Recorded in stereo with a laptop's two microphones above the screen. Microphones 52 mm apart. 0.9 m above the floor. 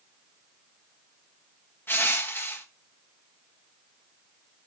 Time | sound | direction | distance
1.9 | crushing | 50° left (ahead or behind) | 0.9 m